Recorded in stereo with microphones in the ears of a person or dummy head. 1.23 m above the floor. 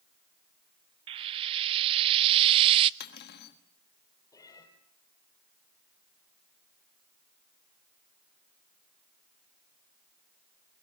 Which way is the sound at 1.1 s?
25° right (ahead or behind).